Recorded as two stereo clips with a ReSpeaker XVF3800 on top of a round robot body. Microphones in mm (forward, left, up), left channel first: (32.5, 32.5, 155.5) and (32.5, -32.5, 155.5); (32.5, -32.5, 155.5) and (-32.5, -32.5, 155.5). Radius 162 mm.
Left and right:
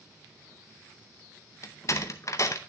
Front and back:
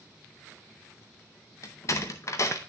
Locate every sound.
1.6 s a door slam: 45° left, 0.6 m